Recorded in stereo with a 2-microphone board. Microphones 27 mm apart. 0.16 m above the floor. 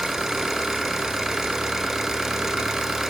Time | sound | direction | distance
0.0 | an engine running | 15° right (ahead or behind) | 0.7 m